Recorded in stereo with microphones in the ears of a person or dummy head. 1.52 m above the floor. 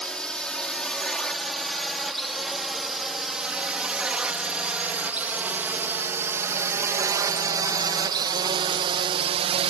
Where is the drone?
Centre (ahead or behind); by 9.7 s 35° right (ahead or behind).